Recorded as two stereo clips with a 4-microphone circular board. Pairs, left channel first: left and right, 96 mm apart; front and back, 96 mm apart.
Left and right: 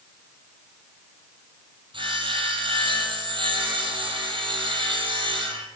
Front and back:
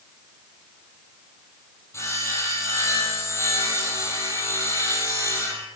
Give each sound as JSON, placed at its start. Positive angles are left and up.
{"t": 1.9, "sound": "sawing", "azimuth_deg": -60, "distance_m": 3.0}